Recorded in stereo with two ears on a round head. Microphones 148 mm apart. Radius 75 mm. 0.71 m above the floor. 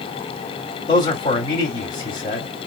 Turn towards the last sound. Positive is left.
turn(degrees=30)  # may be behind; listen again after turning